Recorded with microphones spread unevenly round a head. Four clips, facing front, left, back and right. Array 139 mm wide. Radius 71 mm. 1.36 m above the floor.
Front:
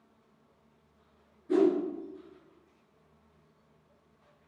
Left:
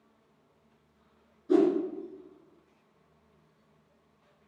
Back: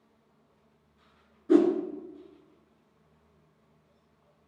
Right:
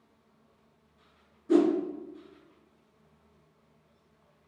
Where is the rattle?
I don't hear a rattle.